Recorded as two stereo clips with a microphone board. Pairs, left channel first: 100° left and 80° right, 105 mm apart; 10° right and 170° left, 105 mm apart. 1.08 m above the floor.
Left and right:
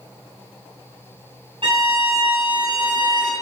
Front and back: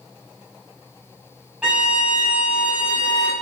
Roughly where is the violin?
Right.